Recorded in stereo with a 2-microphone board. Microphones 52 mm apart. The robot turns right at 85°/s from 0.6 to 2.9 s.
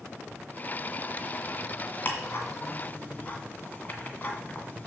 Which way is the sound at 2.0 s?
40° left (ahead or behind).